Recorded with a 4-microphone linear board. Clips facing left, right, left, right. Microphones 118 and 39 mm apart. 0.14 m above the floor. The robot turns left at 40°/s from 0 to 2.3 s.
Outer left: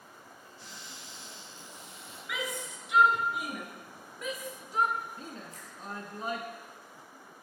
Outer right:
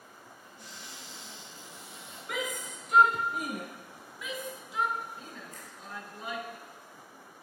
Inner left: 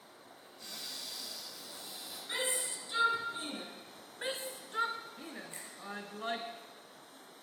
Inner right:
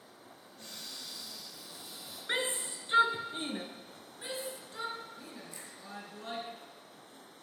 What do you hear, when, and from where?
0.6 s a cupboard door: 125° right, 6.5 m; by 2.2 s 170° left, 6.5 m
2.3 s a shout: 45° right (ahead or behind), 2.0 m
4.2 s a shout: 40° left (ahead or behind), 1.4 m
5.5 s a finger snap: 35° left (ahead or behind), 3 m